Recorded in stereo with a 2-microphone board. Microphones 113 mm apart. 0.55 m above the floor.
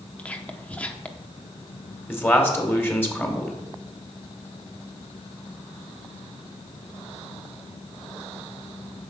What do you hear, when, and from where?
0.2 s whispering: 10° left (ahead or behind), 0.9 m
2.1 s a man speaking: 20° left (ahead or behind), 2 m